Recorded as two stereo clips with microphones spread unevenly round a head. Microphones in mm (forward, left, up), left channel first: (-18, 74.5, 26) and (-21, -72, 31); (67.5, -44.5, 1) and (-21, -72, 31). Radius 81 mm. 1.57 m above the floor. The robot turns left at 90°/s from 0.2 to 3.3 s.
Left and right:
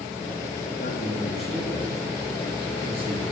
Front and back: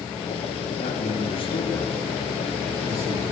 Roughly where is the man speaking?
Ahead left.